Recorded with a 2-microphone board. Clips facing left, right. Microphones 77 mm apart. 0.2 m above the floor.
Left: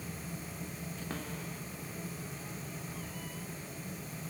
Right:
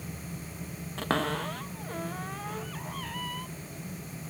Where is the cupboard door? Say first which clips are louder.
Right 15 dB; 75° right (ahead or behind).